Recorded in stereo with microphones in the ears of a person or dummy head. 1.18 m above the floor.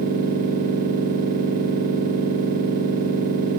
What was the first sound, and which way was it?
A machine running, 45° right (ahead or behind).